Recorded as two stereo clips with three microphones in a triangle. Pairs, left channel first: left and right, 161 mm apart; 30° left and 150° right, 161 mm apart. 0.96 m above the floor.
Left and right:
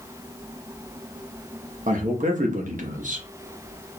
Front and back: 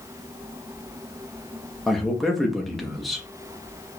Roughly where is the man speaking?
Ahead right.